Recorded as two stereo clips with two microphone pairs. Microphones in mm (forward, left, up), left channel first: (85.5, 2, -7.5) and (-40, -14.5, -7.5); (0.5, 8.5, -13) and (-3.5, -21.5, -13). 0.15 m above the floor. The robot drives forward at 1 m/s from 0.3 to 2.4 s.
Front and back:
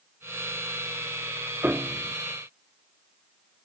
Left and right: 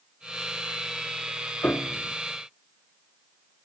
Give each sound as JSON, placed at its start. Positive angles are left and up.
{"t": 1.6, "sound": "a piano", "azimuth_deg": 110}